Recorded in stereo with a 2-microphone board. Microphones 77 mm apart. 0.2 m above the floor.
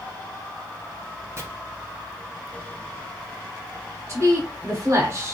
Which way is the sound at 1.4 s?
35° right (ahead or behind).